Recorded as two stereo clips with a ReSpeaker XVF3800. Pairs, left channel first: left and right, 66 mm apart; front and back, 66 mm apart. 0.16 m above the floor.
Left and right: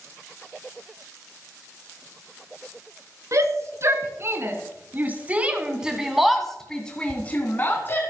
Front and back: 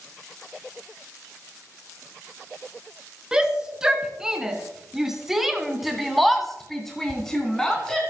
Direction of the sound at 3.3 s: 105° right.